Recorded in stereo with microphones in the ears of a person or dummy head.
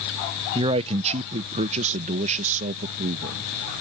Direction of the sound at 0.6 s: 30° right (ahead or behind).